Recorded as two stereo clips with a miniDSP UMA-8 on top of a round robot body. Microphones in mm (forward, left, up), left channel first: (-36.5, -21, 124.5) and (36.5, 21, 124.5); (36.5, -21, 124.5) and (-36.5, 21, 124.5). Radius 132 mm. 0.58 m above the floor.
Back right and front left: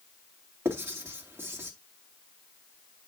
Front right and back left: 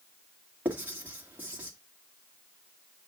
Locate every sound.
0.7 s writing: 85° left, 2.5 m